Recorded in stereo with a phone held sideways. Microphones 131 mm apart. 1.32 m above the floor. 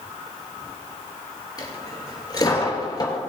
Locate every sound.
1.6 s a dropped coin: 30° left (ahead or behind), 3 m